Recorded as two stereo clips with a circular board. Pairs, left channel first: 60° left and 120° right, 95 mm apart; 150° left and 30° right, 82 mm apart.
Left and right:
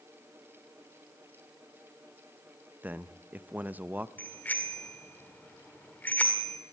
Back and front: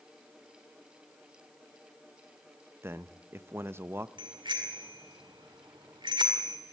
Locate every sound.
2.8 s a man speaking: 60° right, 0.7 m
4.2 s a bicycle bell: 10° right, 2 m